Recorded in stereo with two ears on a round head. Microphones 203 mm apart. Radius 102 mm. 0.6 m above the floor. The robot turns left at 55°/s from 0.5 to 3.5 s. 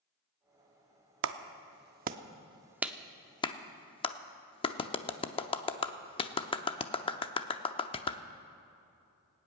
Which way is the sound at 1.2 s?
55° right (ahead or behind).